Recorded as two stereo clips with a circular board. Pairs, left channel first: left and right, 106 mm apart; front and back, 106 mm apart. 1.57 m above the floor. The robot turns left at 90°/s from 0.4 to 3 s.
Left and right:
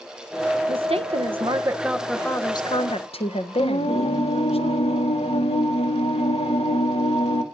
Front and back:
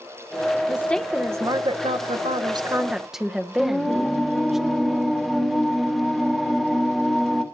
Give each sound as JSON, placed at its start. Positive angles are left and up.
{"t": 0.7, "sound": "a woman speaking", "azimuth_deg": -55, "distance_m": 1.0}
{"t": 3.6, "sound": "singing", "azimuth_deg": 90, "distance_m": 1.8}